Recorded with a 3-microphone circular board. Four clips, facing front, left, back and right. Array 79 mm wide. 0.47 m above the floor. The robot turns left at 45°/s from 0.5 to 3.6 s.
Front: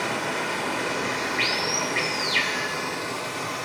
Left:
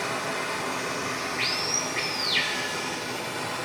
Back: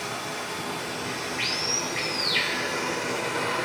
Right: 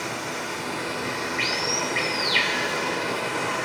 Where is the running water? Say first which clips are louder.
Left 1 dB, front 6 dB; 5° left, 1.4 m; by 3.7 s 130° right, 1.4 m.